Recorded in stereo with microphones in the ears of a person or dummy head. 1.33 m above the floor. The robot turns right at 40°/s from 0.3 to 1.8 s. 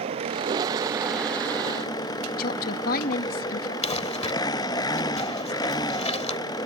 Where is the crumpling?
30° left (ahead or behind).